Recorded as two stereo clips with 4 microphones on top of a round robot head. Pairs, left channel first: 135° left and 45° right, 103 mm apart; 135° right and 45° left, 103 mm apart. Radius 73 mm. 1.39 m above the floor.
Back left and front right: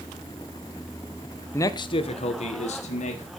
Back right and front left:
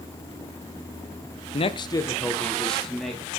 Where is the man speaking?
160° right, 1.0 m; by 3.2 s 135° left, 2.5 m.